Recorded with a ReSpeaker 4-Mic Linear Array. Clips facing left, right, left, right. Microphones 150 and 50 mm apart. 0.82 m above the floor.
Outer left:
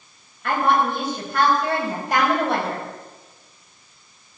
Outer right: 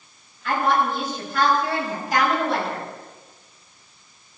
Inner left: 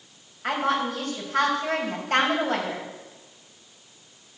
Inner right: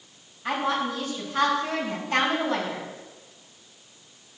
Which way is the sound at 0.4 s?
70° left (ahead or behind).